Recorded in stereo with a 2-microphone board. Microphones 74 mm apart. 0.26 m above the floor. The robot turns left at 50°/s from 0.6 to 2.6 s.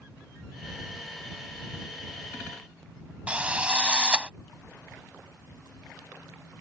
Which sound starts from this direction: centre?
A drill, at 3.3 s.